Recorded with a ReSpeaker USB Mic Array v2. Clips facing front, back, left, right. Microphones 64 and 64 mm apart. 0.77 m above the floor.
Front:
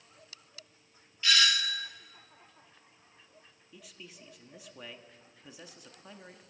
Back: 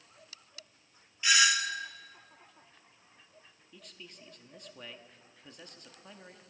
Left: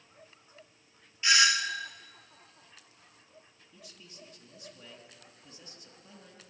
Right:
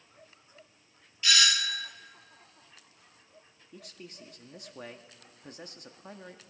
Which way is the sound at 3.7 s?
85° right.